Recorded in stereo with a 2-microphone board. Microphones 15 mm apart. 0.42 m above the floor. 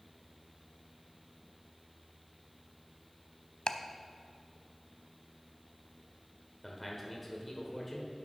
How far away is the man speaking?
About 1.4 m.